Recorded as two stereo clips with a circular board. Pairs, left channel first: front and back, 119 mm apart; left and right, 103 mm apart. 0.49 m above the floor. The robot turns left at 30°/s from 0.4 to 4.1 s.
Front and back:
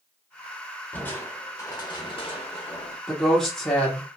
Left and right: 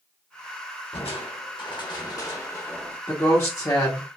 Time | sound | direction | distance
0.9 | crushing | 75° left | 0.9 m
3.1 | a woman speaking | 95° left | 1.0 m